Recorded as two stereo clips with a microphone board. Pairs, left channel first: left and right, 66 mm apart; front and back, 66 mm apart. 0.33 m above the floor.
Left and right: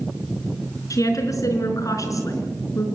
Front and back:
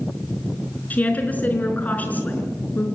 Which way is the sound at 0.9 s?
65° left.